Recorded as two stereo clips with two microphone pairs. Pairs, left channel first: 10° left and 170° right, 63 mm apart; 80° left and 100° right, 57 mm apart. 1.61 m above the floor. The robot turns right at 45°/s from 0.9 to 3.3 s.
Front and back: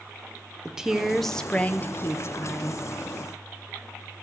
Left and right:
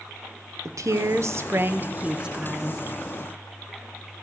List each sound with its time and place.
0.7 s a woman speaking: 90° right, 0.6 m; by 2.8 s 5° right, 0.6 m